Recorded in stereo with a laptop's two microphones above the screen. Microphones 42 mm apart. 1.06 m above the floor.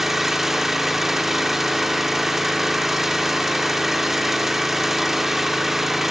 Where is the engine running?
5° right (ahead or behind), 0.8 m.